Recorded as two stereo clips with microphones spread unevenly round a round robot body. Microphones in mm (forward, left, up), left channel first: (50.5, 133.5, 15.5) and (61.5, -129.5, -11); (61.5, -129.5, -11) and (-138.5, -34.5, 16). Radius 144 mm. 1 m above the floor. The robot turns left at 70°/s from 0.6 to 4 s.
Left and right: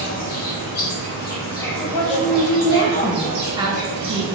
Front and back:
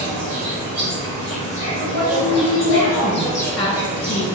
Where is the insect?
90° left, 1.1 m; by 4.4 s 150° right, 1.1 m.